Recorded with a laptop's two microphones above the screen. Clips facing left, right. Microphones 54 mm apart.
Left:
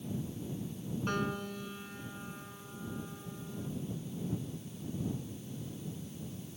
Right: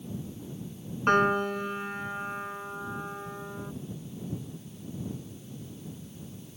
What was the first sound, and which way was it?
A piano, 55° right (ahead or behind).